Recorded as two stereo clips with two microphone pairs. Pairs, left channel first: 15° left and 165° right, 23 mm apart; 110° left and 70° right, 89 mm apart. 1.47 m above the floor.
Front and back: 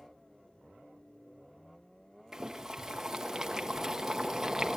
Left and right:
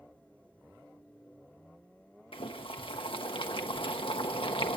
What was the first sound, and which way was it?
Boiling, 125° left.